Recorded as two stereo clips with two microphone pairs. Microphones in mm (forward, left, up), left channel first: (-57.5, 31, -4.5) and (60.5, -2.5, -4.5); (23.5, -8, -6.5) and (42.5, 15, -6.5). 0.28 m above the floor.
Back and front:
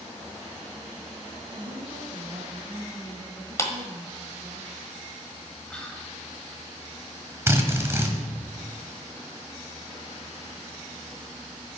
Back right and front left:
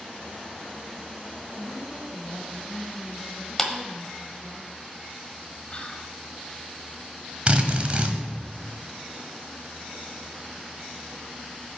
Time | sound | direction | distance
1.5 | a woman speaking | 65° right | 2.5 m
3.6 | a clap | 165° left | 1.2 m
5.7 | whispering | 120° right | 1.1 m
7.5 | a drill | 40° left | 1.3 m